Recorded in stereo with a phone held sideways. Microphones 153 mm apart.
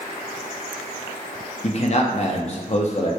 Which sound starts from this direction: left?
A man speaking, at 1.6 s.